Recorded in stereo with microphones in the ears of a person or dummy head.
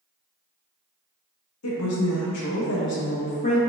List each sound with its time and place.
1.6 s a woman speaking: 80° left, 1.5 m; by 3.6 s 25° left (ahead or behind), 0.8 m